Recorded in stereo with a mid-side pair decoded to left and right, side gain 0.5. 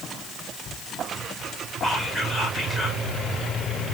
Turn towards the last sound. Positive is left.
turn(degrees=-15)